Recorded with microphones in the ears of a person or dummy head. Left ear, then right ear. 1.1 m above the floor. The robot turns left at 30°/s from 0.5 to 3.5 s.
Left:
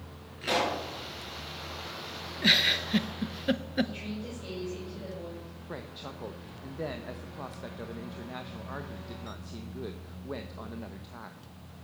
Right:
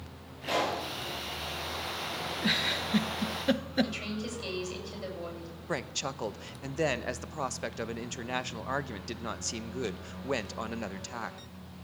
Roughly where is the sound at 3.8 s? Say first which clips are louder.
Right 3 dB; right.